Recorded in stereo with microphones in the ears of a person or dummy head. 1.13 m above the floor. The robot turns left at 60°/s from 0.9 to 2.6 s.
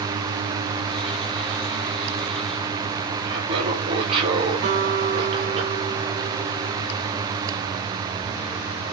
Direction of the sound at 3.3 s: 30° right (ahead or behind).